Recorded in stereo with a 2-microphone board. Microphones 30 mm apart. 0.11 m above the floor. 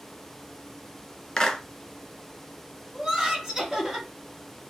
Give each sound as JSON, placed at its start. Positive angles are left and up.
{"t": 1.4, "sound": "a clap", "side_deg": 25, "distance_m": 0.9}
{"t": 2.9, "sound": "laughter", "side_deg": -15, "distance_m": 2.5}